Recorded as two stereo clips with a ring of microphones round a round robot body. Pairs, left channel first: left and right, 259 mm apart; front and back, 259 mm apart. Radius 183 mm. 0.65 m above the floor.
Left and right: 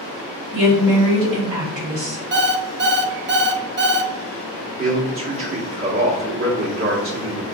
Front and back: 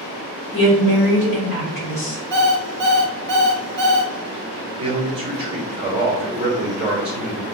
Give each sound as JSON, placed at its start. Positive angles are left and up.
{"t": 0.5, "sound": "a woman speaking", "azimuth_deg": -45, "distance_m": 1.7}
{"t": 2.3, "sound": "an alarm clock", "azimuth_deg": -145, "distance_m": 0.6}
{"t": 4.8, "sound": "a man speaking", "azimuth_deg": -110, "distance_m": 1.3}